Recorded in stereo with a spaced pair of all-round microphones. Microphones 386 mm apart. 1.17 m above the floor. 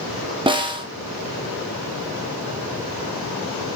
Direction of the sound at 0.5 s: 15° right (ahead or behind).